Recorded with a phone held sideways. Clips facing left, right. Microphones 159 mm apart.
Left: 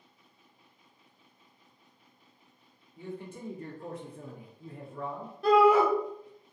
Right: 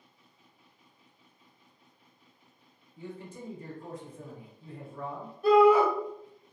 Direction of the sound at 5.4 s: 75° left (ahead or behind).